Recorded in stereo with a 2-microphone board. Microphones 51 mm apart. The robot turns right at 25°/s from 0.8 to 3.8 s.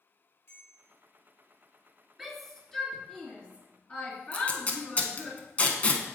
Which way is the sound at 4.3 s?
30° left (ahead or behind).